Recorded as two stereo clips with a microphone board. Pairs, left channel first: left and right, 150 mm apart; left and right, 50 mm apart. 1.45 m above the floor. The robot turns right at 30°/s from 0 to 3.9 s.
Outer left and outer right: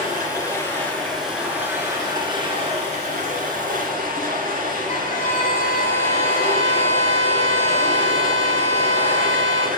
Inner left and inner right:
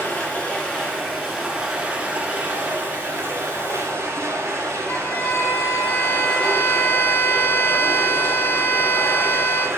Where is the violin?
50° left (ahead or behind), 1.7 m.